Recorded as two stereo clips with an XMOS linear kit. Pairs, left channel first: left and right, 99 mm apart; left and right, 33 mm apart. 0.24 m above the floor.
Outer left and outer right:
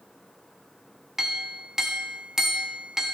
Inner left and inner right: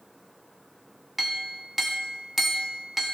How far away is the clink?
About 0.9 m.